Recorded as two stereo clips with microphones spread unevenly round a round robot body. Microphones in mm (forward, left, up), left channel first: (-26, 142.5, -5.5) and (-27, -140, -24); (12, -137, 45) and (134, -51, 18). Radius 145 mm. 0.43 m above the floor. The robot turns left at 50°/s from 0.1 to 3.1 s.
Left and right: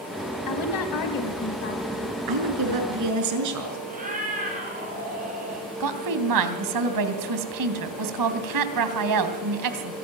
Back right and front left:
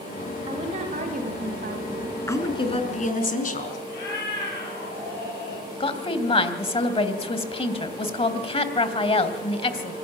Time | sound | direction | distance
0.5 | a woman speaking | 100° left | 3 m
2.3 | a woman speaking | 70° right | 5.5 m
3.9 | a cat meowing | 155° right | 7.5 m
5.8 | a woman speaking | 90° right | 3 m